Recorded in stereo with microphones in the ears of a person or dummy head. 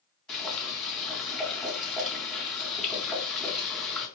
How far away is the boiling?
About 3.5 m.